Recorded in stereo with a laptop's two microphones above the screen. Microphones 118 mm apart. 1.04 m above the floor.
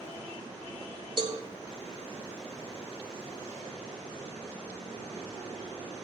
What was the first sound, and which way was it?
A cowbell, 40° right (ahead or behind).